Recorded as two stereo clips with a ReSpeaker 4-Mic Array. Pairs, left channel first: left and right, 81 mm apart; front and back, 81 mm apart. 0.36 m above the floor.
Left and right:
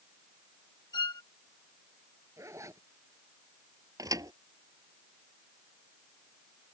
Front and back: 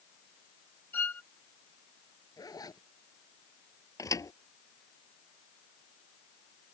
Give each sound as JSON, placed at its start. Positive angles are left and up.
{"t": 0.9, "sound": "a violin", "azimuth_deg": 70}
{"t": 2.4, "sound": "a zipper", "azimuth_deg": -40}
{"t": 4.0, "sound": "a thud", "azimuth_deg": -45}